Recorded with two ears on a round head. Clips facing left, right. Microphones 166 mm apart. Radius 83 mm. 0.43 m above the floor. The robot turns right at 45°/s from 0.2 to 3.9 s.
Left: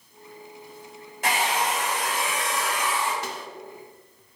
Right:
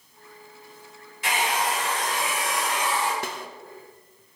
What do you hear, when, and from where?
1.2 s a hair dryer: 135° left, 2 m; by 3.1 s 140° right, 2 m
3.2 s a snare drum: 50° right (ahead or behind), 0.5 m; by 3.5 s 40° right (ahead or behind), 0.5 m